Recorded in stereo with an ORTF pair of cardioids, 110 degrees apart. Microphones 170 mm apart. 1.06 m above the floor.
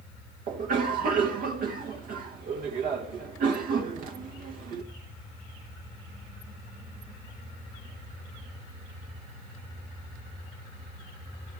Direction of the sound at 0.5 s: 60° right.